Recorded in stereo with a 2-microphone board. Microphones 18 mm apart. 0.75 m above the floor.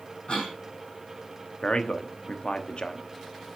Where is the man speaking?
50° left (ahead or behind), 1.0 m.